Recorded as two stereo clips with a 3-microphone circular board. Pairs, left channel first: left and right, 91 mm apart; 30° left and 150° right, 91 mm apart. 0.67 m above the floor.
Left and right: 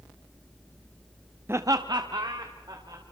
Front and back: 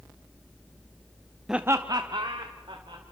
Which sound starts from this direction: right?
Laughter, at 1.5 s.